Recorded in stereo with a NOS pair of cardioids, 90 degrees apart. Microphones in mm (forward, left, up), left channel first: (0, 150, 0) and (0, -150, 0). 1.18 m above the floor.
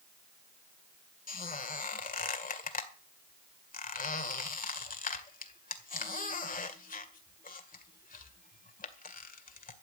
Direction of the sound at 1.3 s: 30° left.